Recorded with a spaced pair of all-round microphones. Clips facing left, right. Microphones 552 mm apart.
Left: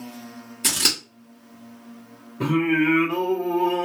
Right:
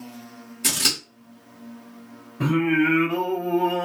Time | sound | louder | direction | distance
0.6 | scissors | even | centre (ahead or behind) | 1.2 m
2.4 | singing | even | 15° right (ahead or behind) | 0.9 m